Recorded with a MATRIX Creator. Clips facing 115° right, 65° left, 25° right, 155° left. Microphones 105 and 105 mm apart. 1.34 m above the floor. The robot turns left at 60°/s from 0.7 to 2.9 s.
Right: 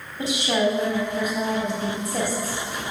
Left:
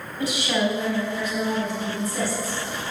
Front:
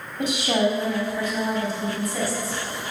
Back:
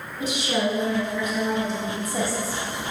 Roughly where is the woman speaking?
Ahead right.